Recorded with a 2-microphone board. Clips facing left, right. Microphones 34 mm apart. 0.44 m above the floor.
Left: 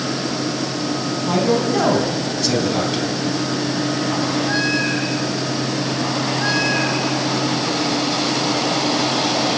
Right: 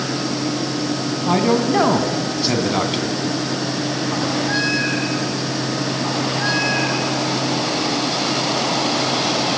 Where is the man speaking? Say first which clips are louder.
Right 1 dB; 20° right (ahead or behind), 4 m.